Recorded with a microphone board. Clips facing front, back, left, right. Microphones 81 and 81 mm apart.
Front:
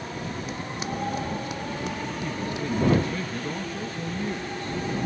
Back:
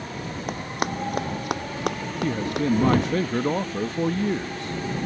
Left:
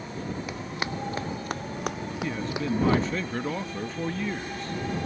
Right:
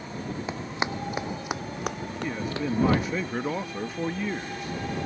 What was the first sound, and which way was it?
Running footsteps, 150° right.